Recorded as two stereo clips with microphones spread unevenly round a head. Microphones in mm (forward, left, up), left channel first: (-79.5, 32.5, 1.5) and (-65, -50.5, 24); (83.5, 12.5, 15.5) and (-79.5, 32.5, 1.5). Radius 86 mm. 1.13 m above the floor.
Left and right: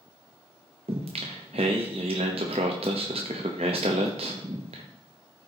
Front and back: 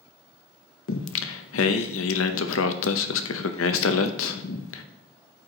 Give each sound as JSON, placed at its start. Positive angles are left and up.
{"t": 0.9, "sound": "singing", "azimuth_deg": -25, "distance_m": 0.7}